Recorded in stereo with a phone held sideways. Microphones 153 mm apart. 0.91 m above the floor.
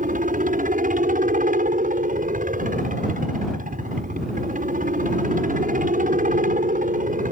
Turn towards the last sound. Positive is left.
turn(degrees=-60)  # may be behind; listen again after turning